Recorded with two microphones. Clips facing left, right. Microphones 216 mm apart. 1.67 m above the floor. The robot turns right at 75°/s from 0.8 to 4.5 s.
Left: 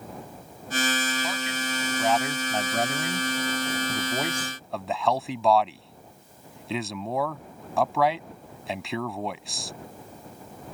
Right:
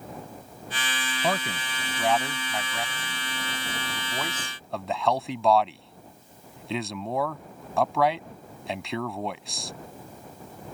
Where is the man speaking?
65° right (ahead or behind); by 9.7 s centre (ahead or behind).